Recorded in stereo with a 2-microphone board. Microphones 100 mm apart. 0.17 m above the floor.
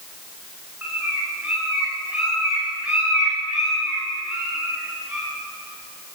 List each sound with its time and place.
0.8 s a bird: 15° right (ahead or behind), 9.5 m